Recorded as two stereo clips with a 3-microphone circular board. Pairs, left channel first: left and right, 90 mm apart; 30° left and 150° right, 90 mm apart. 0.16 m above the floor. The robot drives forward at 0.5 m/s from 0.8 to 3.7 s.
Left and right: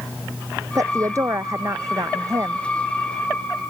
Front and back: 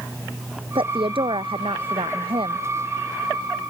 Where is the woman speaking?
140° right; by 2.7 s 145° right.